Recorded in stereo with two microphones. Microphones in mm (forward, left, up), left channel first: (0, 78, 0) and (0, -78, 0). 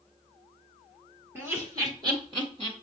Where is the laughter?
15° right (ahead or behind), 2.5 m; by 2.7 s 40° right (ahead or behind), 2 m.